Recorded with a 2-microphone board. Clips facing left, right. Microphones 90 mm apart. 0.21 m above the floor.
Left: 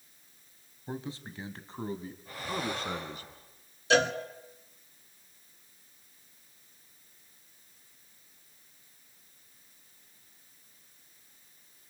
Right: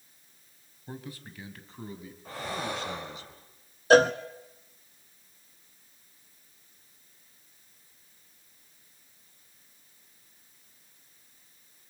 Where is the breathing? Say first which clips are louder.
Right 1 dB; 80° right, 7 m.